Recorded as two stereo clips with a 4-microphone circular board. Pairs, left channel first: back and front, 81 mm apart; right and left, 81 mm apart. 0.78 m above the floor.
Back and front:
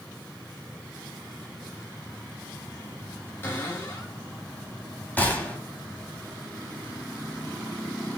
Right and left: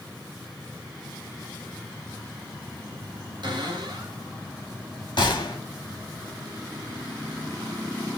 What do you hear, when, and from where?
3.4 s a cupboard door: 120° left, 2.5 m
5.2 s a gunshot: 110° right, 1.4 m